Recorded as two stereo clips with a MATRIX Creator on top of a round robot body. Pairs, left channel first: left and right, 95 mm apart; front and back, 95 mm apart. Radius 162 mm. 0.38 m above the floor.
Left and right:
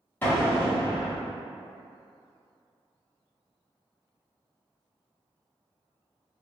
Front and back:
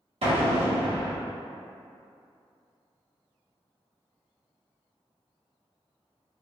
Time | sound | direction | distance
0.2 | an explosion | 160° left | 1.2 m